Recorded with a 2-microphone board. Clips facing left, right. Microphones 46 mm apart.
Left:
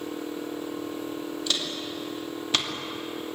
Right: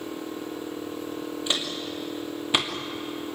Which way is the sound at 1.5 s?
20° right (ahead or behind).